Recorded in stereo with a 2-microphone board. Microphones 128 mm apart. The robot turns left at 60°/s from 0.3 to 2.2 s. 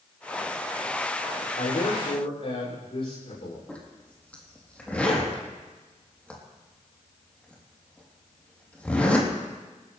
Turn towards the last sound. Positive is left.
turn(degrees=10)  # may be behind; listen again after turning